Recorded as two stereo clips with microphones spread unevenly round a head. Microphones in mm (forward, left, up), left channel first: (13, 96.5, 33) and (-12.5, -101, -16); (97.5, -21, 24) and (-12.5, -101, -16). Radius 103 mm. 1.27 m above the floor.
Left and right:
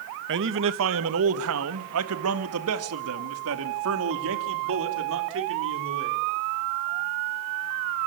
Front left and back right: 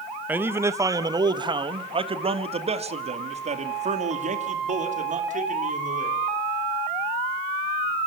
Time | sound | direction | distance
0.3 | a man speaking | 70° right | 1.3 m